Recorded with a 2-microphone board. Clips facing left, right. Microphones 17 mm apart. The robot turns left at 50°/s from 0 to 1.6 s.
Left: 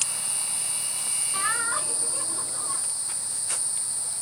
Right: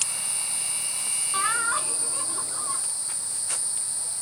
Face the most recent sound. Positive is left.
turn(degrees=-45)  # may be behind; listen again after turning